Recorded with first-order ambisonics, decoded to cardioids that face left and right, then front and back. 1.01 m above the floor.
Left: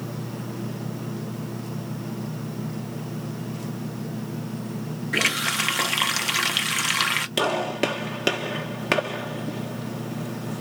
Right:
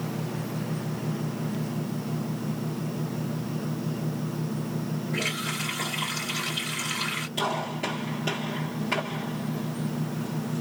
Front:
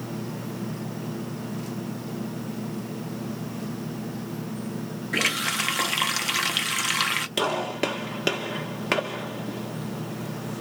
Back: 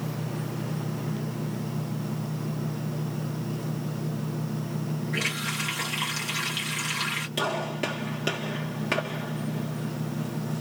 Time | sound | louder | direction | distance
5.1 | a running tap | left 8 dB, front 5 dB | 60° left | 0.7 m
7.4 | a gunshot | left 3 dB, front 3 dB | 65° left | 1.3 m